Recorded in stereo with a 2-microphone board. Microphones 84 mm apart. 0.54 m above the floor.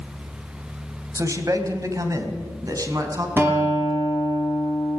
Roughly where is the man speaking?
Right.